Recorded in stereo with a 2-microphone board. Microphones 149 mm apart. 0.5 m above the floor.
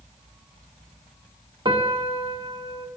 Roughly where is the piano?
Right.